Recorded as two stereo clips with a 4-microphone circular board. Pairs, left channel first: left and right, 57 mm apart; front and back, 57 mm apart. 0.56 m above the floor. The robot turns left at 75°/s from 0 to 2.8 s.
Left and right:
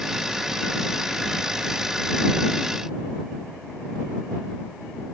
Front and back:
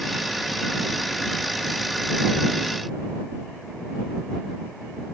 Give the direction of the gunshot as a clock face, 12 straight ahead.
No gunshot in this recording.